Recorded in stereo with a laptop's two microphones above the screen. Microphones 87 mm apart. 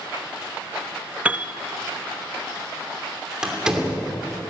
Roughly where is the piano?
Centre.